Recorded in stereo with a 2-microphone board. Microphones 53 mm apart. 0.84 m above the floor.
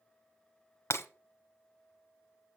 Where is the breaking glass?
55° left (ahead or behind), 1.3 m.